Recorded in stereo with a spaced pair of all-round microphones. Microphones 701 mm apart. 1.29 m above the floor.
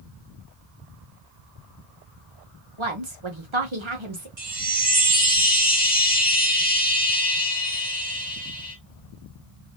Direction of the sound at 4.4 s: 75° right (ahead or behind).